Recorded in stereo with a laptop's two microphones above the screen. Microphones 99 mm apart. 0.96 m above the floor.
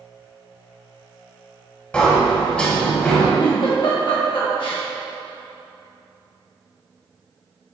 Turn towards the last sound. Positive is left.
turn(degrees=55)  # may be behind; listen again after turning